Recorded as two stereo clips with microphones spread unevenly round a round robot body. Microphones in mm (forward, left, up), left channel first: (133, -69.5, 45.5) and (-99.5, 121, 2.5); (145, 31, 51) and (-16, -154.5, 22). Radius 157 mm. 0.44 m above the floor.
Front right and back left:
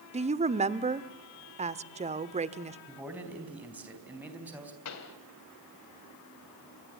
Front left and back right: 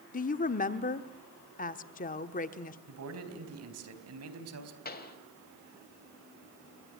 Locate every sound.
0.1 s a woman speaking: 100° left, 1.0 m
2.9 s a man speaking: 140° right, 4 m
4.8 s a pop: 5° right, 3 m